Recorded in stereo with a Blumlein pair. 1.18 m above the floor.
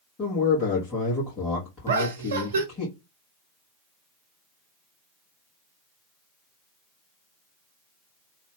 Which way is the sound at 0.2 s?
20° left.